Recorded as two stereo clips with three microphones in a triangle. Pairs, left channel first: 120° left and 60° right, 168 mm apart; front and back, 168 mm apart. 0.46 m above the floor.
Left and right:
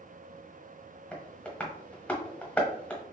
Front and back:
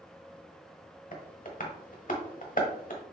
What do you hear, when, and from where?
1.1 s tapping: 40° left, 1.0 m